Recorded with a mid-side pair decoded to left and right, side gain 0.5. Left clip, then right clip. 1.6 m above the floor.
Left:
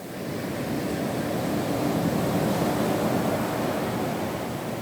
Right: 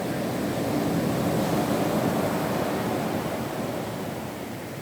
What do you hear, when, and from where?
Only background noise.